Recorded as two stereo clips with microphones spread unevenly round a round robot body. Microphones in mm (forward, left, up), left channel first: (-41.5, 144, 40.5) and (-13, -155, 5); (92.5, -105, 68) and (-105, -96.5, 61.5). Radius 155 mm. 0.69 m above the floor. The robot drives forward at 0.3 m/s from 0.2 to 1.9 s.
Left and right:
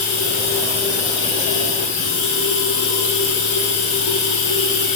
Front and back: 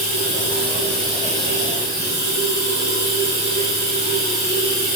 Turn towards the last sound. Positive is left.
turn(degrees=45)